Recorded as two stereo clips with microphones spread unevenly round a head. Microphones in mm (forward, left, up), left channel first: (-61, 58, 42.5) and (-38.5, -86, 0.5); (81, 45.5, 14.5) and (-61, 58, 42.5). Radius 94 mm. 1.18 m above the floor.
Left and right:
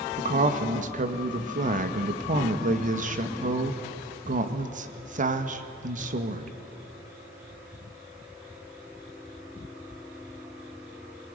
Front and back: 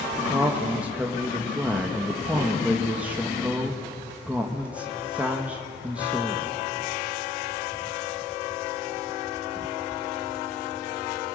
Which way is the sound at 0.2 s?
100° right.